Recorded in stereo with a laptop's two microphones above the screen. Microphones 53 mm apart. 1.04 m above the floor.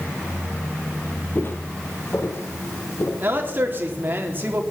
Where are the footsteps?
40° left (ahead or behind), 1.6 m; by 3.1 s 65° left (ahead or behind), 3.5 m.